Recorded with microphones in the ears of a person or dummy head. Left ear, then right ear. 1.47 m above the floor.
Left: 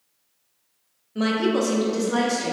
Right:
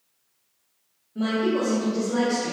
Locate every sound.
1.1 s a woman speaking: 45° left (ahead or behind), 0.7 m; by 2.5 s 75° left (ahead or behind), 1.0 m